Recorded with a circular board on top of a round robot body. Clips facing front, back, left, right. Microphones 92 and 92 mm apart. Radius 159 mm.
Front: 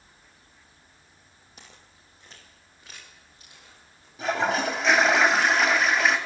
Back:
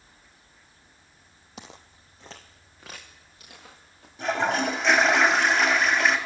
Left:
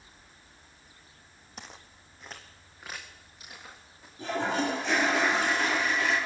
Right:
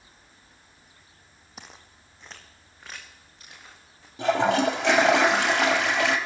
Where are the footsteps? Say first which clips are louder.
Back 8 dB, even; 175° right, 0.8 m; by 4.1 s 170° left, 3.5 m.